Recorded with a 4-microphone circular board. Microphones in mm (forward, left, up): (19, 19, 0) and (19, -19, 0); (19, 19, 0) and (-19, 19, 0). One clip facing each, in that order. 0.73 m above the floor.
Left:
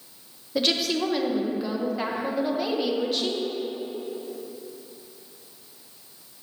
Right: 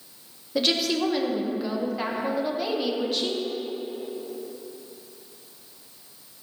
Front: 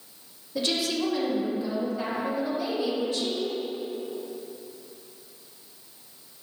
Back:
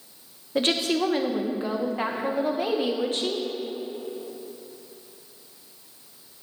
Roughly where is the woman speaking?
Behind.